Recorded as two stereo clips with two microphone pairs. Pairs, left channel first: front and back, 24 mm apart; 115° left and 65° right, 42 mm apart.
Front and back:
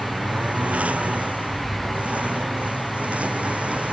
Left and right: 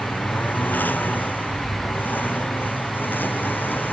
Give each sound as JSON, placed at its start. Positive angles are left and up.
{"t": 0.0, "sound": "a lawn mower", "azimuth_deg": 160}